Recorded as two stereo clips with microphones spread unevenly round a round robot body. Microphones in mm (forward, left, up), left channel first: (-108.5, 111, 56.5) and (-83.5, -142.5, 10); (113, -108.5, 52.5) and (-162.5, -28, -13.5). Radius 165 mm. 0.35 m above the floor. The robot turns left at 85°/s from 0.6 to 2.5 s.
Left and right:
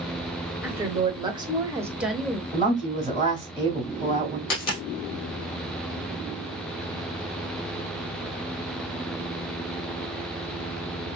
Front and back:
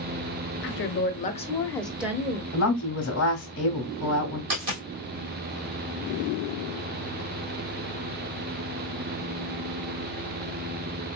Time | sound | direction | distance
0.6 | a woman speaking | 25° right | 0.8 m
2.5 | a woman speaking | 15° left | 1.3 m
4.5 | a dropped coin | 115° left | 1.8 m